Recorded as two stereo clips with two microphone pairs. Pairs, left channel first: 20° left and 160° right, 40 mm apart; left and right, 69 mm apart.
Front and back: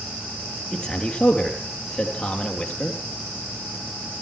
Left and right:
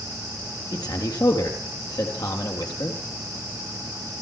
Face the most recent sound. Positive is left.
turn(degrees=95)